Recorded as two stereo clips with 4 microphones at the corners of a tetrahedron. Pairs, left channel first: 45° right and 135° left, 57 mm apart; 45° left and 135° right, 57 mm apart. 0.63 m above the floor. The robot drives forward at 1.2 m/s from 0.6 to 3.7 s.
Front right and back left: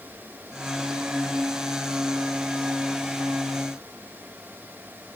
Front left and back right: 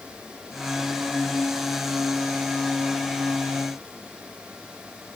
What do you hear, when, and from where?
Only background noise.